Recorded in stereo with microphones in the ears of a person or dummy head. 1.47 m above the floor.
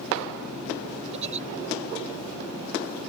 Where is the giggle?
35° right (ahead or behind).